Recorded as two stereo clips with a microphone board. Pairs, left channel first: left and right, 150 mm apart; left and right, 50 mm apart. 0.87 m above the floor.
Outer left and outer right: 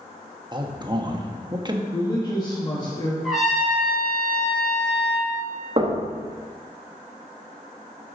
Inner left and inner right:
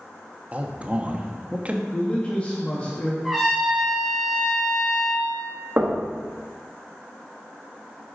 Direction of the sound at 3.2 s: 5° right (ahead or behind).